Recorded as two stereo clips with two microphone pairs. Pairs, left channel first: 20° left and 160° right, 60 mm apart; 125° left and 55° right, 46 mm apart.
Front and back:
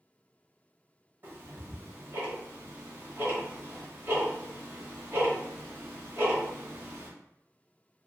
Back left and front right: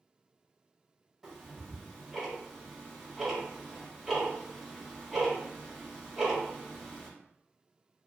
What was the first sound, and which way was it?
Ticking, 140° right.